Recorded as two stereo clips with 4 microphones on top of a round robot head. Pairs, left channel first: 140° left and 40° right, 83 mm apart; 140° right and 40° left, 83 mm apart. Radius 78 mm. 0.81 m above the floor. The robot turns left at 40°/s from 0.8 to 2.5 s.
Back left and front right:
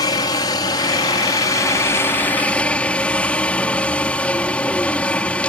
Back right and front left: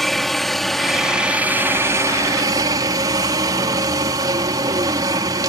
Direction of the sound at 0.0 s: 135° left.